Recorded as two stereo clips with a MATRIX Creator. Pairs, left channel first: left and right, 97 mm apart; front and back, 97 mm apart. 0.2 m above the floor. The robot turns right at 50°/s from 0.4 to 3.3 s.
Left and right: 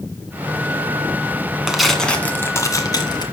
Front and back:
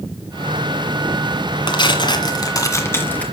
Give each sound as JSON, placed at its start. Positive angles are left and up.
{"t": 1.7, "sound": "tearing paper", "azimuth_deg": -5, "distance_m": 1.9}